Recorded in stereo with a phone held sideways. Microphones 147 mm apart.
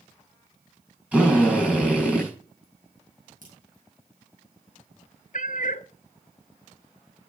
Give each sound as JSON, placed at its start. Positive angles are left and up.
{"t": 1.1, "sound": "a drill", "side_deg": -10, "distance_m": 5.5}
{"t": 3.4, "sound": "a crack", "side_deg": -65, "distance_m": 5.0}
{"t": 5.3, "sound": "a cat meowing", "side_deg": 60, "distance_m": 0.6}